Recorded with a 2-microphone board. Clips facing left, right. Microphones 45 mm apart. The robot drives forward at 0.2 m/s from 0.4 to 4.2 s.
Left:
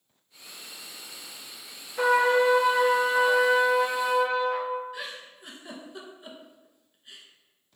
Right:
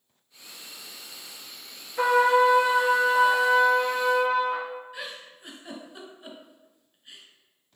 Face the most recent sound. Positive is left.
turn(degrees=0)  # may be behind; listen again after turning